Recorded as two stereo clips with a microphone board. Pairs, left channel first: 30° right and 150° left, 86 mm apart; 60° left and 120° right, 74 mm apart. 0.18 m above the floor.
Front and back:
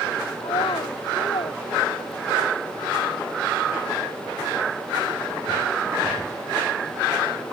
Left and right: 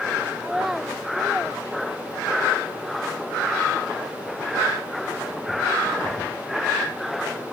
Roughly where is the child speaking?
Ahead right.